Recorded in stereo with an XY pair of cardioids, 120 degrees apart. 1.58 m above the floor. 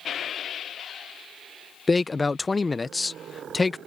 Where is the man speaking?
20° left.